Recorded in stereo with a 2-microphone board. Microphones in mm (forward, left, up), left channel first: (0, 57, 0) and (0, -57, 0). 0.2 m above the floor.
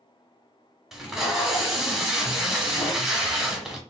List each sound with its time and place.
0.9 s tape being pulled: centre (ahead or behind), 0.8 m